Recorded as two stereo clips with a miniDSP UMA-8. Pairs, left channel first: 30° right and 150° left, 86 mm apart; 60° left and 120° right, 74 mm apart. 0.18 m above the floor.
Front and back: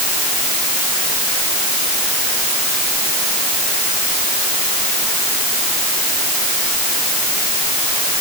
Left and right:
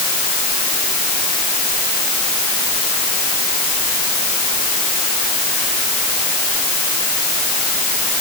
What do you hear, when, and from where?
Only background noise.